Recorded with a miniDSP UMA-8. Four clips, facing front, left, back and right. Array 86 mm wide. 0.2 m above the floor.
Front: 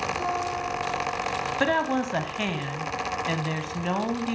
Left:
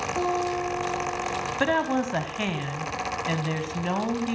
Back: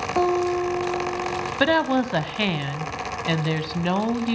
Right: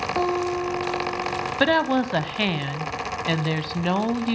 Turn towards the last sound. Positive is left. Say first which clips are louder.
# right 4 dB, back 5 dB
turn(degrees=-130)